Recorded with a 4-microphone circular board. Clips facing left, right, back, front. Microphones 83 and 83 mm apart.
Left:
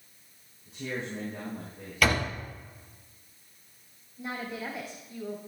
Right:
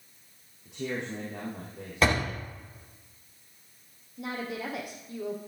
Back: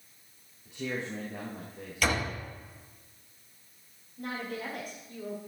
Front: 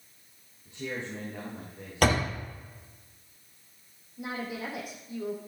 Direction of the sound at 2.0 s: 30° right.